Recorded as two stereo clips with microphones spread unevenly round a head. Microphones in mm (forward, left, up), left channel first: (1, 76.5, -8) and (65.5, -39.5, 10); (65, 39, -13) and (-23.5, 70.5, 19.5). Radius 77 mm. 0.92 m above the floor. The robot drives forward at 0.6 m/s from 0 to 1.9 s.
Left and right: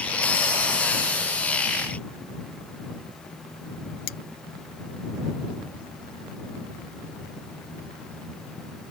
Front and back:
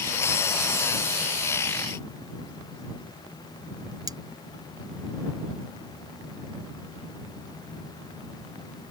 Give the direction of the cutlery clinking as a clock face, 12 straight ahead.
8 o'clock.